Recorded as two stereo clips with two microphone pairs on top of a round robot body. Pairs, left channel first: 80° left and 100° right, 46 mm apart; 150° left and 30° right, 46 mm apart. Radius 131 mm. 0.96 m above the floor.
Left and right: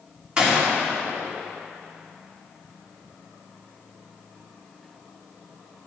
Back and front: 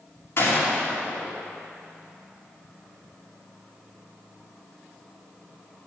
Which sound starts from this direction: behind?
A gunshot, at 0.4 s.